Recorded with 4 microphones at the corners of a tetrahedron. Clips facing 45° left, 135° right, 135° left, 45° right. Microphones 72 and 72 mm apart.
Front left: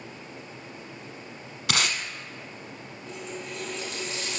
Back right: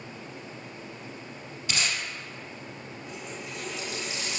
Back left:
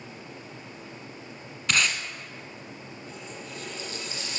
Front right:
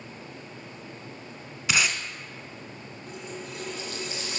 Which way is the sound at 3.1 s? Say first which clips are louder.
Front left 4 dB, front right 4 dB; 60° right.